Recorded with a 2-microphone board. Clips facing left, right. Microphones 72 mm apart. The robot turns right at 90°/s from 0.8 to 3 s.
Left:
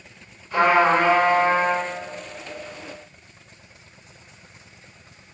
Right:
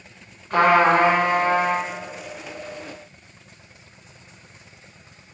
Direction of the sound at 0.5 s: 60° right.